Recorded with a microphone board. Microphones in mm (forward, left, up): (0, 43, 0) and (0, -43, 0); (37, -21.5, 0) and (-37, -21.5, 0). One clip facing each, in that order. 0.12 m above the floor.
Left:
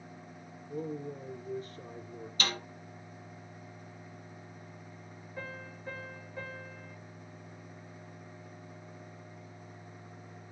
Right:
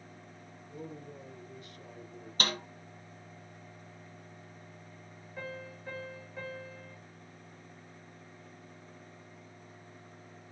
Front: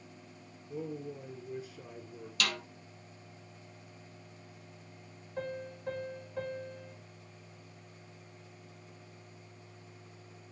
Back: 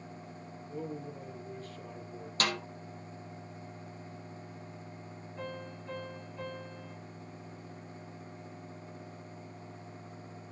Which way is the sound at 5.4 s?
5° right.